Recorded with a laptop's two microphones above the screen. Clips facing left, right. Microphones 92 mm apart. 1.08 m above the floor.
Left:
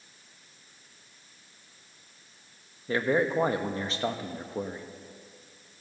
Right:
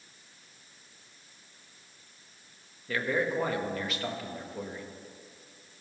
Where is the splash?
No splash in this recording.